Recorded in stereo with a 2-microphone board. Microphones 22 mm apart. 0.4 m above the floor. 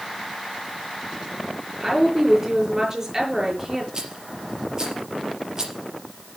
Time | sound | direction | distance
1.8 | a woman speaking | 20° right (ahead or behind) | 6.5 m
3.9 | a rattle | 30° right (ahead or behind) | 4.5 m